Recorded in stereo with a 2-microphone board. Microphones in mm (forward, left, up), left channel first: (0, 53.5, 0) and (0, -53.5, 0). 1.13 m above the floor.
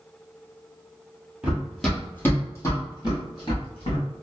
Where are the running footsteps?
10° right (ahead or behind), 1.4 m; by 4.0 s 55° left (ahead or behind), 2.5 m.